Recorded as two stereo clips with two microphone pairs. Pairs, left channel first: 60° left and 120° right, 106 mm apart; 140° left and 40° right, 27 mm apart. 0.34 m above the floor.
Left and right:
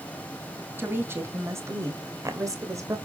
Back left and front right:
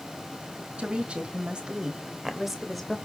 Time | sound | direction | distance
0.8 | a woman speaking | 55° right | 2.5 m